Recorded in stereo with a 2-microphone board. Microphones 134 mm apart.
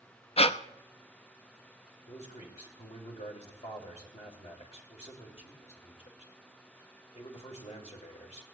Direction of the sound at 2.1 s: 60° left (ahead or behind).